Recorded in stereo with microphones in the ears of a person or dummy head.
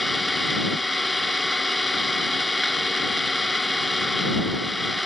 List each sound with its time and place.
0.0 s an engine running: 5° left (ahead or behind)